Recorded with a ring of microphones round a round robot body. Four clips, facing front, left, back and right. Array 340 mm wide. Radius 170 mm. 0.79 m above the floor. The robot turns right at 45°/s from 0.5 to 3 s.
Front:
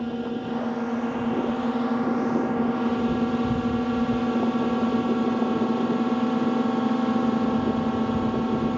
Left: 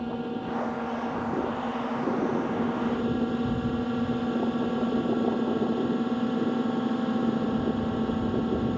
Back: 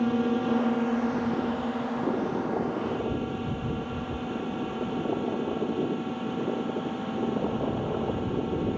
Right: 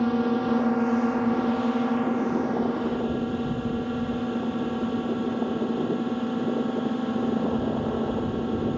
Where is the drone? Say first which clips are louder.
Right 8 dB, back 3 dB; 110° right; by 8.8 s straight ahead.